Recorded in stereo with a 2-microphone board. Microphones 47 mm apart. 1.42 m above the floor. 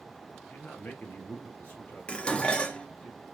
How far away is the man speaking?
About 0.7 m.